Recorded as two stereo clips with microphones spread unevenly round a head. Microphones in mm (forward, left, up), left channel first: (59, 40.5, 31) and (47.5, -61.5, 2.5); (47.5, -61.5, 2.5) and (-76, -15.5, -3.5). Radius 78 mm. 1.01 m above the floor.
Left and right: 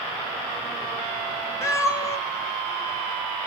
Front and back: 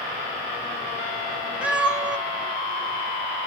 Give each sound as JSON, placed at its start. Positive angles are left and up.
{"t": 1.6, "sound": "a cat meowing", "azimuth_deg": 80, "distance_m": 0.9}